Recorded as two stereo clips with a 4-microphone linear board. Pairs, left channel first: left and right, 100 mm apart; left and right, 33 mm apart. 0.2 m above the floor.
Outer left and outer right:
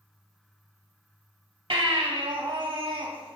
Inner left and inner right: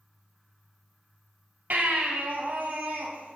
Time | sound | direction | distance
1.7 | a baby crying | 55° right (ahead or behind) | 2 m